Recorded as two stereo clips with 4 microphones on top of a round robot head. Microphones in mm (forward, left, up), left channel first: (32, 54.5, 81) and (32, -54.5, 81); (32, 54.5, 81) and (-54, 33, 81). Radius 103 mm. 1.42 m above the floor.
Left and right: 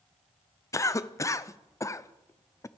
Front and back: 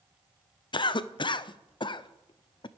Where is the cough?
30° left, 0.7 m.